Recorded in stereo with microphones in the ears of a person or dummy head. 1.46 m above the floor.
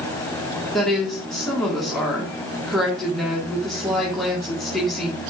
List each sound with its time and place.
0.7 s a woman speaking: 5° left (ahead or behind), 2.0 m